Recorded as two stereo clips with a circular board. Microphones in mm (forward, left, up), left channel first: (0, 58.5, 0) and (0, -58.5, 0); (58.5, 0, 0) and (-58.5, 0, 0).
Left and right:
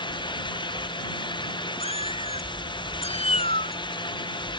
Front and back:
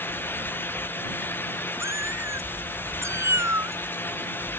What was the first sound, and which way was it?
A cat meowing, 115° left.